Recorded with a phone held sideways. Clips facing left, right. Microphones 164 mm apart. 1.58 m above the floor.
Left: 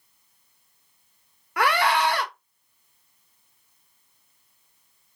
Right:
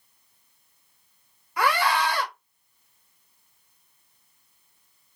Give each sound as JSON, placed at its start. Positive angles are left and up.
{"t": 1.6, "sound": "a scream", "side_deg": 65, "distance_m": 0.9}